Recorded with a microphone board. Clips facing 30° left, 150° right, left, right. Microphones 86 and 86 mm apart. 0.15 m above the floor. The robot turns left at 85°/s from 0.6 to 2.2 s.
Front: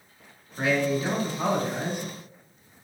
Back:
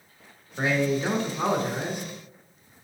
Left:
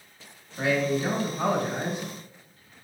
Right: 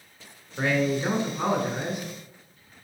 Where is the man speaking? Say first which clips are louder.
Even, even; 95° right, 1.5 m; by 2.1 s 140° left, 1.5 m.